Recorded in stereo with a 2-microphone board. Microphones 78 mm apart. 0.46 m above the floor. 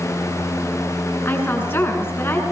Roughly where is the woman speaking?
Left.